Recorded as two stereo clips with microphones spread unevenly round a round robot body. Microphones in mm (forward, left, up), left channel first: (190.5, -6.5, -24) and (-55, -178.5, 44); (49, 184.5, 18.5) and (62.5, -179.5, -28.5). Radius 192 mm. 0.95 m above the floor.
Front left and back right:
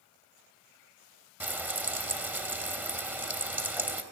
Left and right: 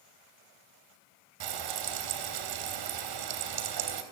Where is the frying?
60° right, 3.5 m.